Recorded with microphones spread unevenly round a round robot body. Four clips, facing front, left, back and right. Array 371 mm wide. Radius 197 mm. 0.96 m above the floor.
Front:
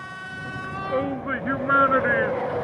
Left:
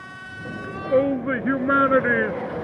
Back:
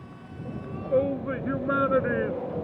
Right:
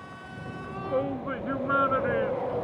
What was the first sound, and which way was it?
A shout, 65° left.